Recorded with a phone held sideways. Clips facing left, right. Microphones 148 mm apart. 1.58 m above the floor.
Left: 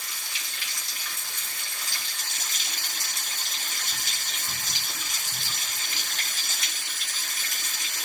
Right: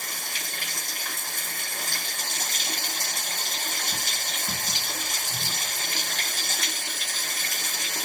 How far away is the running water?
About 0.7 m.